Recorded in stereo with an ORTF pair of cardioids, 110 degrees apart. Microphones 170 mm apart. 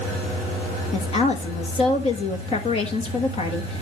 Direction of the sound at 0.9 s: 35° left.